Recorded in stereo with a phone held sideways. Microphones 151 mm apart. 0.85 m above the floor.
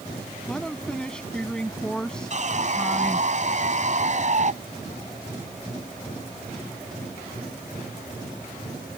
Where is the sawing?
50° right (ahead or behind).